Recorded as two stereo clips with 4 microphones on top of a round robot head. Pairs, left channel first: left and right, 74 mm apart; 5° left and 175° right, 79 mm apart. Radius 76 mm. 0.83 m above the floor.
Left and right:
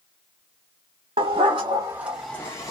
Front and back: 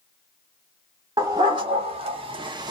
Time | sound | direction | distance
1.2 | a dog barking | 115° right | 0.8 m